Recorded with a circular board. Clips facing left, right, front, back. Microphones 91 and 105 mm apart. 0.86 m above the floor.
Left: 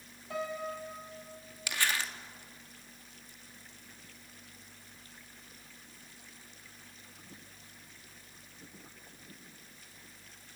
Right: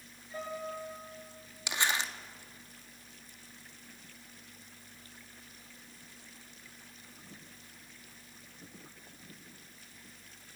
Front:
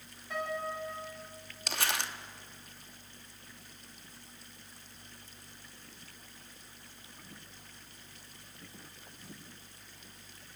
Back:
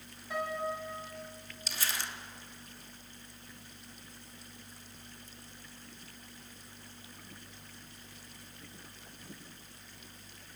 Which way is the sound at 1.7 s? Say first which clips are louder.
Right 1 dB, front 4 dB; 20° right.